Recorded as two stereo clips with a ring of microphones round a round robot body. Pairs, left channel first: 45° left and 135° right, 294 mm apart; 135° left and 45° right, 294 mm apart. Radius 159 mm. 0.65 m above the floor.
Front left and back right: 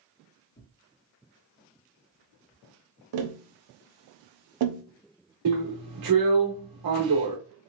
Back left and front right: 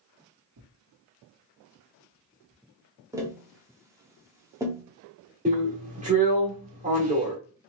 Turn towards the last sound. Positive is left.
turn(degrees=-110)